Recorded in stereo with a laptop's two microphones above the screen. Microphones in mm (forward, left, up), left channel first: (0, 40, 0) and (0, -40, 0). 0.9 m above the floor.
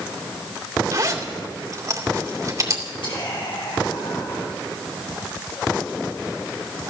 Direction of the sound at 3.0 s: 75° left (ahead or behind).